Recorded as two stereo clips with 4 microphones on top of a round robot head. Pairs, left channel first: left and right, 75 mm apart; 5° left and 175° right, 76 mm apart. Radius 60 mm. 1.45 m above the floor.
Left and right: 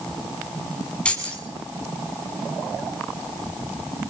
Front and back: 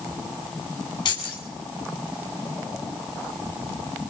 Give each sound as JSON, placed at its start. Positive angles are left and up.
{"t": 1.1, "sound": "keys jangling", "azimuth_deg": 15, "distance_m": 8.0}